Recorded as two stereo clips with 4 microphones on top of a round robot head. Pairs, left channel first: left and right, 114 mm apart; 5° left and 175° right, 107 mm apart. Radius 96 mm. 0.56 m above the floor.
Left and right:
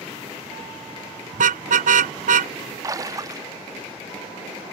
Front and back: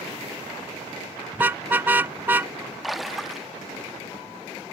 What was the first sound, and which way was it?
A car horn, 95° right.